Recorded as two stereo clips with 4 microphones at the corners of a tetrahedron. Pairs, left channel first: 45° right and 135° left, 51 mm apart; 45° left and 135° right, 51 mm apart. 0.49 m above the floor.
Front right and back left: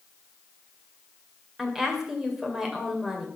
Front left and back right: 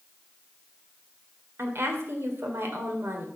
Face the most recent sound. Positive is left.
turn(degrees=-145)